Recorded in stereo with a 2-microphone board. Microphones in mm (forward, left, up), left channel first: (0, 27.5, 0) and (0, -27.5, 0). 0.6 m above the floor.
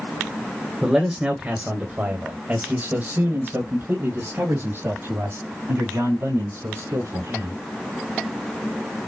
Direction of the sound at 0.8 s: 15° right (ahead or behind).